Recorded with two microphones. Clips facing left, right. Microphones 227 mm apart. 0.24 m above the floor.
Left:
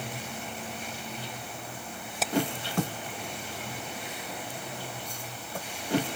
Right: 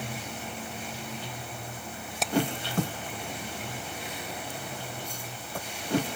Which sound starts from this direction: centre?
Hammering, at 2.2 s.